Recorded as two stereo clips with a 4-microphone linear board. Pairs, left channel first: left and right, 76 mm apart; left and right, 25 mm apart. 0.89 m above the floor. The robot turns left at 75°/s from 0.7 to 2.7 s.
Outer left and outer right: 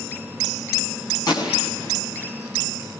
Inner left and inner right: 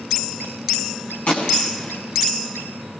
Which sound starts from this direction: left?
A gunshot, at 1.3 s.